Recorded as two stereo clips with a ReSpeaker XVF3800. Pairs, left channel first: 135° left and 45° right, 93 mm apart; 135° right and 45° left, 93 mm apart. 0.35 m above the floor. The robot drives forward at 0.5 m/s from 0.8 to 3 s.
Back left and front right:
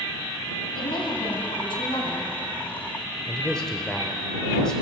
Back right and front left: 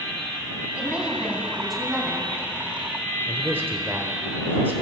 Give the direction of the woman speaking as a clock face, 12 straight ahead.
8 o'clock.